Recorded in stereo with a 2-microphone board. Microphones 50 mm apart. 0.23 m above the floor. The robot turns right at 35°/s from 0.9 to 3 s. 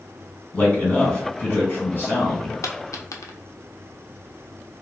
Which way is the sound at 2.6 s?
65° left (ahead or behind).